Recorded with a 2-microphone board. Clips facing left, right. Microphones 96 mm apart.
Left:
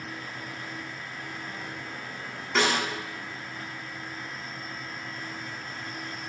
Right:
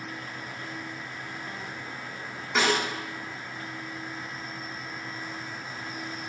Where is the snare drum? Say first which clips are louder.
Even; 5° right (ahead or behind), 3.5 m.